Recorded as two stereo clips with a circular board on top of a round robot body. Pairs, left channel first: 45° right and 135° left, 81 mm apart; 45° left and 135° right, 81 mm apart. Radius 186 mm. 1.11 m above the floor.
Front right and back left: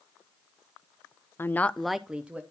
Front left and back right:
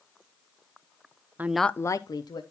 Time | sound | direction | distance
1.4 | a woman speaking | 85° right | 0.7 m